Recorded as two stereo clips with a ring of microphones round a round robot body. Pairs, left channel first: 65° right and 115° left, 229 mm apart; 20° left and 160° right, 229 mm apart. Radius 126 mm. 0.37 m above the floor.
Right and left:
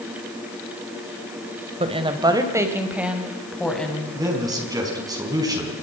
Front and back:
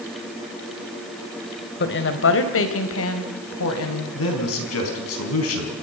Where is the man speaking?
40° left, 4.5 m.